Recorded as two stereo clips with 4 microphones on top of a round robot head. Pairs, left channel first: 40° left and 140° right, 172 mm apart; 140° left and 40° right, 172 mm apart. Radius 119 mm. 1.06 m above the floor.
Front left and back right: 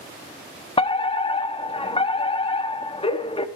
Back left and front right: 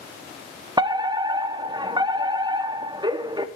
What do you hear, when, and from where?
0.8 s a fire alarm: 10° left, 1.3 m